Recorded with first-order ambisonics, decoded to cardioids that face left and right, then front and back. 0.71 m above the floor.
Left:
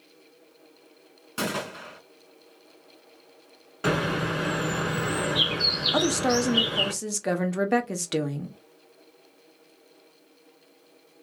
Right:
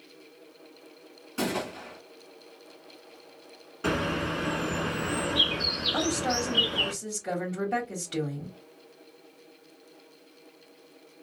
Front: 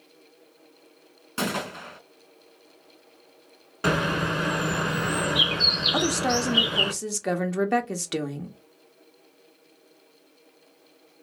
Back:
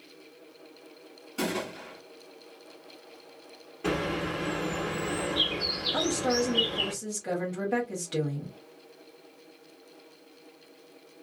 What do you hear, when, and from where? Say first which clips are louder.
1.4 s a gunshot: left 1 dB, front 3 dB; 30° left, 1.4 m
3.8 s a bird: left 3 dB, front 6 dB; 25° left, 1.2 m
5.9 s a woman speaking: left 4 dB, front 3 dB; 50° left, 0.7 m